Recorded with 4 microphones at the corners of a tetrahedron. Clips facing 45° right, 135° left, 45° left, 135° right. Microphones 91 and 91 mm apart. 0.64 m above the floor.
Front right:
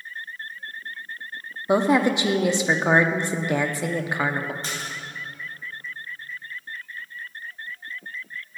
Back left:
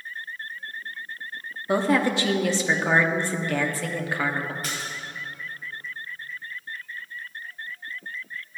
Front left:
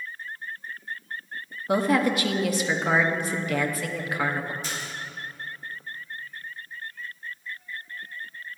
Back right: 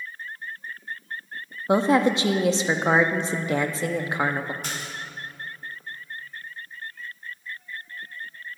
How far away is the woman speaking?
About 0.7 m.